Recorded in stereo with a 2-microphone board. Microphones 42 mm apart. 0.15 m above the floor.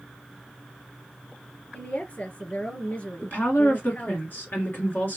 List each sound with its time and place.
1.7 s a woman speaking: 35° left (ahead or behind), 2.5 m
3.2 s a woman speaking: 50° left (ahead or behind), 1.9 m